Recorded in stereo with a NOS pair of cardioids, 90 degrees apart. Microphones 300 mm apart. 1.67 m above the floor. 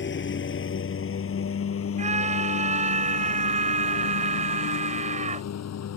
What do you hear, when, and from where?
0.0 s a lawn mower: 40° left; by 6.0 s 60° left
2.0 s a scream: 25° right